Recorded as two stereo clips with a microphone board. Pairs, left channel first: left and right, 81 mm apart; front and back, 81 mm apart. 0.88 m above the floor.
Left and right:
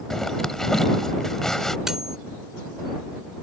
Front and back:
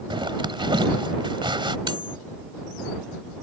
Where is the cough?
I don't hear a cough.